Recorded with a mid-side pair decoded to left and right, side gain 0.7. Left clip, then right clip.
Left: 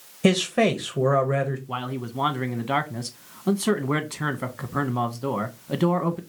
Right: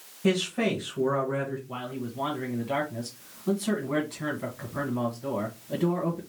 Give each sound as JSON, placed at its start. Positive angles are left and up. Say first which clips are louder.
{"t": 0.2, "sound": "a man speaking", "louder": "left 5 dB", "azimuth_deg": 65, "distance_m": 1.5}
{"t": 1.7, "sound": "a man speaking", "louder": "left 5 dB", "azimuth_deg": 45, "distance_m": 1.3}